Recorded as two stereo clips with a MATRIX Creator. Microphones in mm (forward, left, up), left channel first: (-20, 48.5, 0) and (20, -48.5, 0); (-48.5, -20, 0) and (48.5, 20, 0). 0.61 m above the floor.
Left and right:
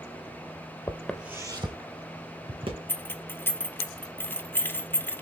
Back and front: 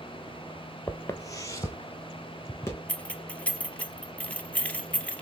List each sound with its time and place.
0.9 s footsteps: 140° left, 0.7 m; by 2.8 s 90° right, 2.5 m
2.9 s keys jangling: 145° left, 0.5 m